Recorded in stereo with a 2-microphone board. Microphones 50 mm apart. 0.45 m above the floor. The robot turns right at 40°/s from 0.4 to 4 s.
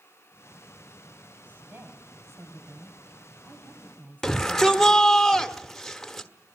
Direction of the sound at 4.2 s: 5° left (ahead or behind).